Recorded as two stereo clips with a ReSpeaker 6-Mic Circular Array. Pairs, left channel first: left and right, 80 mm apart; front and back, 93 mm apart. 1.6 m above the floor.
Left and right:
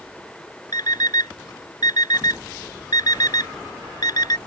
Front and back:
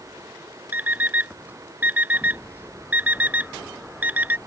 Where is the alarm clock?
110° left.